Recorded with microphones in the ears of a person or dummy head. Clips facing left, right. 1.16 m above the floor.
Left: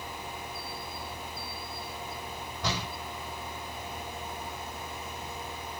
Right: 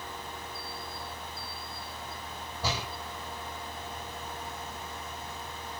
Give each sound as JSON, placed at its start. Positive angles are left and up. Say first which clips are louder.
{"t": 2.6, "sound": "a door slam", "louder": "even", "side_deg": -5, "distance_m": 7.5}